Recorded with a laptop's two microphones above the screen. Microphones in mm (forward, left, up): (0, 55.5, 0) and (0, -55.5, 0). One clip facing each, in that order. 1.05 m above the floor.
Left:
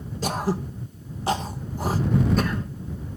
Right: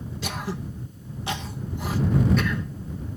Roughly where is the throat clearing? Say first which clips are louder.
Left 7 dB; left.